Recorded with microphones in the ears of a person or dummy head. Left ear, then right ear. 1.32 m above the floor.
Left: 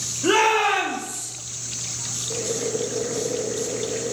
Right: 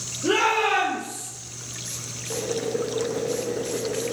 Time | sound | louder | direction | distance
0.2 | a shout | left 3 dB | 55° left (ahead or behind) | 3 m
2.3 | boiling | right 1 dB | centre (ahead or behind) | 0.7 m